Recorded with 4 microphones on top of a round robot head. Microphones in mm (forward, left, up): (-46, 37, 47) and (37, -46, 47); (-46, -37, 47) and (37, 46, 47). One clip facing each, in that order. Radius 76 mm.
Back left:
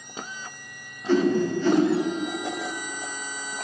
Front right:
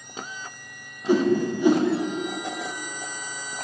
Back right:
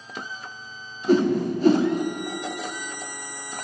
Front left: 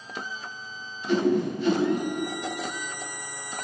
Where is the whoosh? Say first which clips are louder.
Even, back right 3 dB; 115° right, 0.9 m.